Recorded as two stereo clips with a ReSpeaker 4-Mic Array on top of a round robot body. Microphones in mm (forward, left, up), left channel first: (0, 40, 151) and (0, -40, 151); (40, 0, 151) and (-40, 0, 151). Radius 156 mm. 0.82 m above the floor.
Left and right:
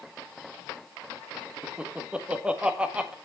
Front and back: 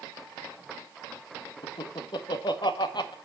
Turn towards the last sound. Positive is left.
turn(degrees=-15)